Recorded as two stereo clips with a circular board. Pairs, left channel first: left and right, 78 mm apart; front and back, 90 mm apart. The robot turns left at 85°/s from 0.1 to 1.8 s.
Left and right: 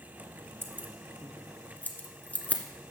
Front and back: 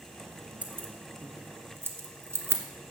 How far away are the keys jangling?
About 1.2 m.